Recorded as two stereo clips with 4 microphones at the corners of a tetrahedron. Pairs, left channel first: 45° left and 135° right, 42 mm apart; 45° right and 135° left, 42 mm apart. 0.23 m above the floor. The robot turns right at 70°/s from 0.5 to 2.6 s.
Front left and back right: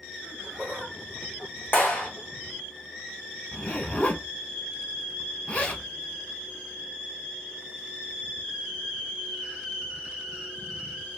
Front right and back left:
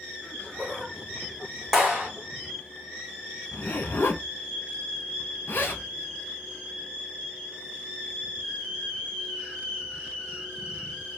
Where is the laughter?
50° right, 1.6 m; by 1.6 s 25° left, 1.6 m.